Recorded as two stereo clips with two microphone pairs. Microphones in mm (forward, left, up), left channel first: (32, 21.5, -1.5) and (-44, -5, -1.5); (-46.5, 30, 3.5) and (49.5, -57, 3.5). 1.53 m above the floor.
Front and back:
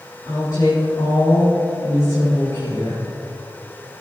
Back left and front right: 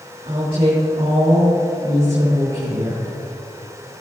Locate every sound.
0.2 s a woman speaking: 25° right, 4 m